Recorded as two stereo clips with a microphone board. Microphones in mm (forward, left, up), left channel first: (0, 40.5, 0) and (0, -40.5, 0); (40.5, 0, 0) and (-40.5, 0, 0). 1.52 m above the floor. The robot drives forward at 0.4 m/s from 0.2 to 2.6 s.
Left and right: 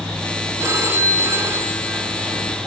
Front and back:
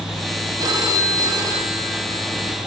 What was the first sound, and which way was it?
A phone ringing, 140° right.